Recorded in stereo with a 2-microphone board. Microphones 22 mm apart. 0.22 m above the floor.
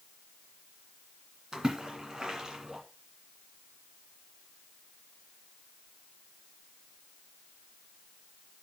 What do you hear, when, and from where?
1.5 s a splash: 30° right (ahead or behind), 2 m